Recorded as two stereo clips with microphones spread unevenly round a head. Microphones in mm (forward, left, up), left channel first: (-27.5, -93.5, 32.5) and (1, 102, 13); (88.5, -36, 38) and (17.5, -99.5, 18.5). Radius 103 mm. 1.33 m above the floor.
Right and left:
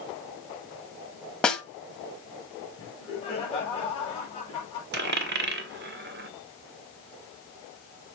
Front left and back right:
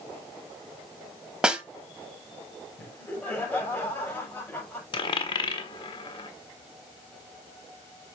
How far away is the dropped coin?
About 1.5 m.